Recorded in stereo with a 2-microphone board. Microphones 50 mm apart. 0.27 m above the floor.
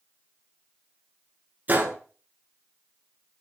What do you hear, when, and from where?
1.7 s a gunshot: 35° right (ahead or behind), 1.2 m